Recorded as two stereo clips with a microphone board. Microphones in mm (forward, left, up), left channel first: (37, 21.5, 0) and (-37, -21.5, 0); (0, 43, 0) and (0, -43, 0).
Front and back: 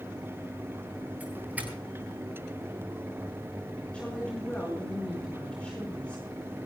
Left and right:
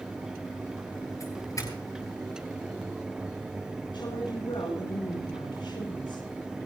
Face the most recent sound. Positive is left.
turn(degrees=105)